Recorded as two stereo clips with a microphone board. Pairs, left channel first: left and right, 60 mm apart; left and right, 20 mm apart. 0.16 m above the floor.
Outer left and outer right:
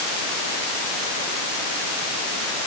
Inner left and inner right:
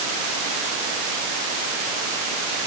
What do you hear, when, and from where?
Only background noise.